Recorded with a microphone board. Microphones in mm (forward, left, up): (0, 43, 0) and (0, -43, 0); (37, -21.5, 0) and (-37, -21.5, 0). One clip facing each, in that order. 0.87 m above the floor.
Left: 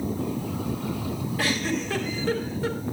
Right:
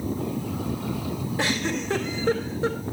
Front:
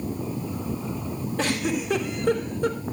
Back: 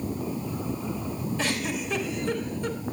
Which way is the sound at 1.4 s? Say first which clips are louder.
Even, front 6 dB; 30° right.